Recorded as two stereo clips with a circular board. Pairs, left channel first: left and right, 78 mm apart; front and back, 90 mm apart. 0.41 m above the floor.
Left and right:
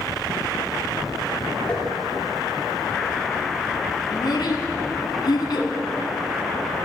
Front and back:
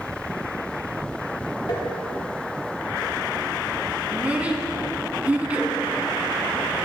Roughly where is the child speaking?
Left.